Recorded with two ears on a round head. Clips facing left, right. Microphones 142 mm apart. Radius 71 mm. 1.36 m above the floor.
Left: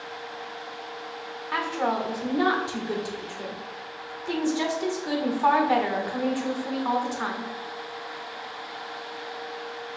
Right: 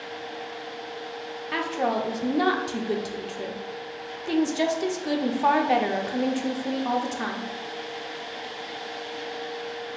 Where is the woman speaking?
25° right (ahead or behind), 0.6 m.